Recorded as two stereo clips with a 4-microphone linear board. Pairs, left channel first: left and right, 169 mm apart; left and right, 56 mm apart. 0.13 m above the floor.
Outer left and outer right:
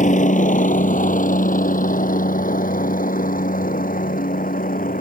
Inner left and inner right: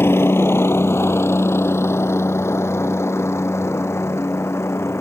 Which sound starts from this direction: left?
A helicopter, at 0.0 s.